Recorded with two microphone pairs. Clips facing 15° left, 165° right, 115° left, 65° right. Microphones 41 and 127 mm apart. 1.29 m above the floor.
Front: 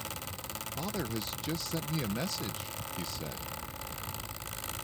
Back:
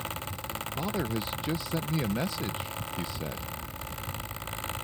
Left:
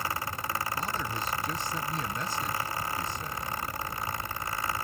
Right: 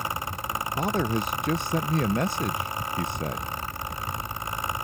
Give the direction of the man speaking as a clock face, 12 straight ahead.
3 o'clock.